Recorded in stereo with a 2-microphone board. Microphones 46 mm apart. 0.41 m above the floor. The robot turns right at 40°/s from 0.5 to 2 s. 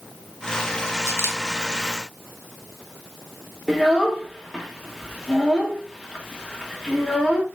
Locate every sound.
1.1 s a camera shutter: 75° left (ahead or behind), 0.7 m; by 1.4 s 60° left (ahead or behind), 0.7 m
3.7 s a child speaking: 5° left (ahead or behind), 0.6 m